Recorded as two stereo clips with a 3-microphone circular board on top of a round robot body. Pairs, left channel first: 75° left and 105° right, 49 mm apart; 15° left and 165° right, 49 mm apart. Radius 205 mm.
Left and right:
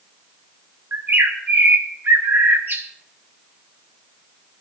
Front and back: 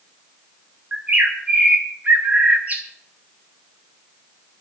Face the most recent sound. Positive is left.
turn(degrees=-120)